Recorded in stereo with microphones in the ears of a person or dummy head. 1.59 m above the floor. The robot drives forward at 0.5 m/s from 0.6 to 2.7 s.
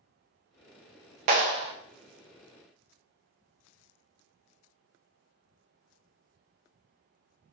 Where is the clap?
35° right (ahead or behind), 0.5 m; by 1.7 s 30° right (ahead or behind), 0.7 m.